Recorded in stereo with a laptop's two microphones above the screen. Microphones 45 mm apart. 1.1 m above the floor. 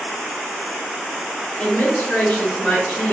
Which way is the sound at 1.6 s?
30° left (ahead or behind).